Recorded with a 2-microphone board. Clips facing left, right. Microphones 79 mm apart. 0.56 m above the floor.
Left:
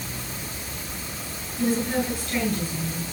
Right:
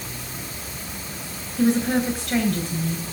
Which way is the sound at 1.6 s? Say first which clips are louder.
Right 4 dB; 75° right (ahead or behind).